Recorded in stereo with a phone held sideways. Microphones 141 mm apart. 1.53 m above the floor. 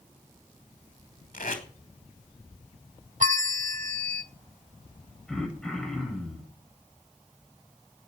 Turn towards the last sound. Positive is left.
turn(degrees=5)  # may be behind; listen again after turning